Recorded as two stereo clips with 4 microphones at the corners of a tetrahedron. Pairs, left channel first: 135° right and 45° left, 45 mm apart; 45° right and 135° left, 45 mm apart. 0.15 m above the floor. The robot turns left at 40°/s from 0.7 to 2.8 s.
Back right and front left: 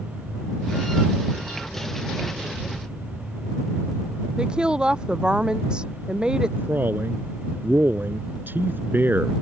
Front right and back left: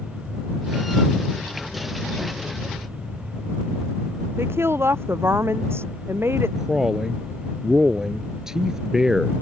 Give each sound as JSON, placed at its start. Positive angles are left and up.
{"t": 4.4, "sound": "a woman speaking", "azimuth_deg": 115}
{"t": 6.6, "sound": "a man speaking", "azimuth_deg": 60}